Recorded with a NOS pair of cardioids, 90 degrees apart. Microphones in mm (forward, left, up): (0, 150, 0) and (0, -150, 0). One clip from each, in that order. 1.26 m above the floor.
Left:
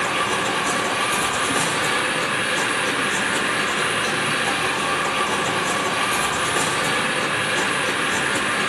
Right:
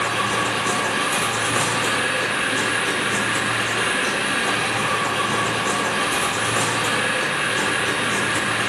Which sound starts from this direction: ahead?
A machine running, at 0.0 s.